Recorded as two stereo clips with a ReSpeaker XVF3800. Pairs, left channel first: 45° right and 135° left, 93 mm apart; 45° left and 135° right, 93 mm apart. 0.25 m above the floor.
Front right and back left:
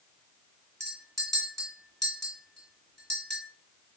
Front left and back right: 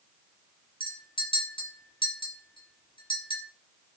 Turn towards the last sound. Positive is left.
turn(degrees=40)